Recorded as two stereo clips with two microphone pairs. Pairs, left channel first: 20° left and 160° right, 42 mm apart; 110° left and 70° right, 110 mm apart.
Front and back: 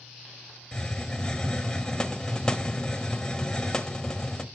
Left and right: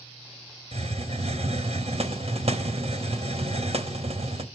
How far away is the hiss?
About 1.3 m.